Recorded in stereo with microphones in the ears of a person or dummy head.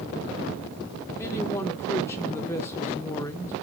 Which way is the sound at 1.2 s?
15° left (ahead or behind).